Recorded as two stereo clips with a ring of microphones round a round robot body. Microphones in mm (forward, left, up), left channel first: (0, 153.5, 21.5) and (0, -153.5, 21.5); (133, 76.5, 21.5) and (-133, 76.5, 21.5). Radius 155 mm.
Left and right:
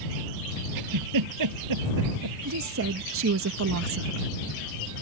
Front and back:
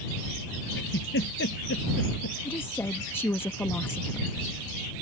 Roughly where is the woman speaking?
Right.